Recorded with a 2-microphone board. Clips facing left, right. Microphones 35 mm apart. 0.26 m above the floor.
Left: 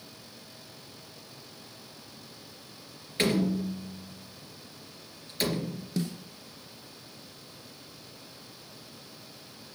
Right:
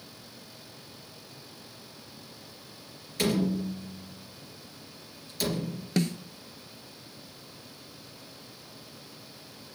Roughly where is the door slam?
Left.